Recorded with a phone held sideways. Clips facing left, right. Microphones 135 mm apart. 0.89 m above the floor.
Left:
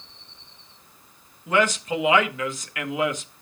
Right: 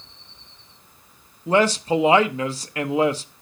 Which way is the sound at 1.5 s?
35° right (ahead or behind).